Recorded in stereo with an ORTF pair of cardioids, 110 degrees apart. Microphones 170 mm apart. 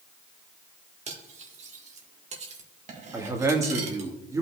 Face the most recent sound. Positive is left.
turn(degrees=-20)